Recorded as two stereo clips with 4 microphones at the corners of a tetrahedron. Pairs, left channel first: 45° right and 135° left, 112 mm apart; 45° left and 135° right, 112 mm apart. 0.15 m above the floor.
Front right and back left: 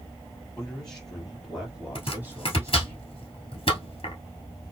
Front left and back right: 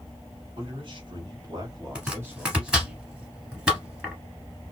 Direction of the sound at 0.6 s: 125° right.